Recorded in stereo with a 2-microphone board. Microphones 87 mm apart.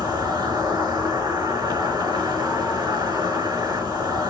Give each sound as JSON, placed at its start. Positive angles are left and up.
{"t": 0.0, "sound": "an insect", "side_deg": -55, "distance_m": 4.5}